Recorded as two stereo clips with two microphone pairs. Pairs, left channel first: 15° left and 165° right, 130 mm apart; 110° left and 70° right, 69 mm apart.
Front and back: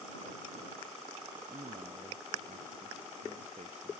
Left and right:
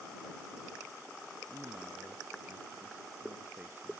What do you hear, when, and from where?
1.5 s a man speaking: 135° right